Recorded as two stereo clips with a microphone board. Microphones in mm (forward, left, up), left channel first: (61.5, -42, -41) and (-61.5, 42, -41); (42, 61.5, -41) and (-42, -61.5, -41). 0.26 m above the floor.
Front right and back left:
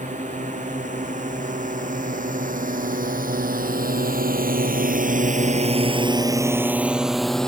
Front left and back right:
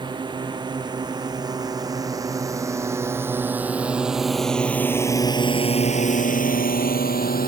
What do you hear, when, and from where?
0.0 s a drone: straight behind; by 7.5 s 50° left